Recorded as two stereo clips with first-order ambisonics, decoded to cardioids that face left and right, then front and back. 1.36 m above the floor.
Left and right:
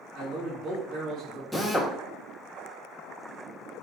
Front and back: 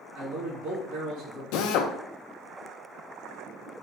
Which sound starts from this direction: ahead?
A drill, at 1.5 s.